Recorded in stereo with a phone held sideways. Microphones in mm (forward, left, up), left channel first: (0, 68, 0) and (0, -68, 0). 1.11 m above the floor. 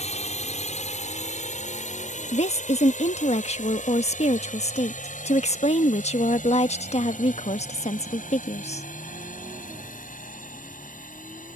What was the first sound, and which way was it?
A drone, 55° left (ahead or behind).